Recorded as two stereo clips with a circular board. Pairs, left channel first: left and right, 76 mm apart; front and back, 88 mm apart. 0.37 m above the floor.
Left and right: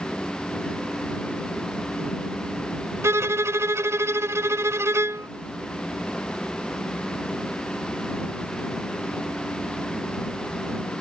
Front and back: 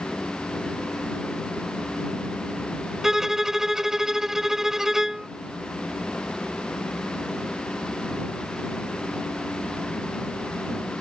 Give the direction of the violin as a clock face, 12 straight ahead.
3 o'clock.